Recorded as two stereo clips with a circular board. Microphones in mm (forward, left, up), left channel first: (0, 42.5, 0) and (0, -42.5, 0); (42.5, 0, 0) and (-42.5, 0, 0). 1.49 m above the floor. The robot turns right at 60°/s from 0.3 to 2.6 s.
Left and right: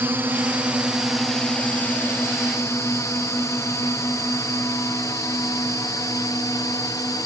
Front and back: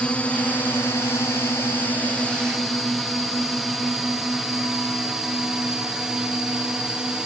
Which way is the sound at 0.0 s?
60° right.